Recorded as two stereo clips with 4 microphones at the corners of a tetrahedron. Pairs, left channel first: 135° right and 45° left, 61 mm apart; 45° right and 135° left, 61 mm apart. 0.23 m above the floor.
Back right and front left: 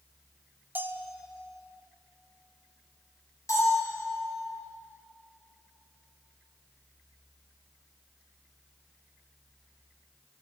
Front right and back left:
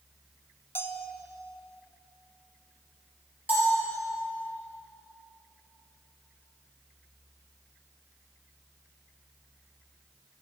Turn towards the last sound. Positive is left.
turn(degrees=-160)